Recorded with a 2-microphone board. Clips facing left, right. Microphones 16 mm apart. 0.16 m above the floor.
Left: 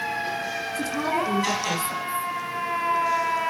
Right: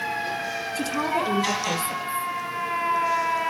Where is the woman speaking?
25° right (ahead or behind), 2.5 m.